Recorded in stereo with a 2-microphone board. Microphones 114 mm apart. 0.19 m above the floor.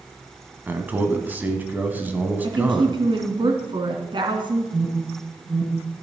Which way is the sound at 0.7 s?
15° right (ahead or behind).